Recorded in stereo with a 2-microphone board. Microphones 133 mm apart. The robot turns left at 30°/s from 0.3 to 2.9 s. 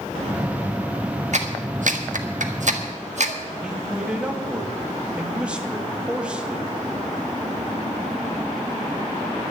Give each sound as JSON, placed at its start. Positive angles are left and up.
{"t": 1.3, "sound": "a clap", "side_deg": -60, "distance_m": 1.4}
{"t": 3.6, "sound": "a man speaking", "side_deg": -5, "distance_m": 1.7}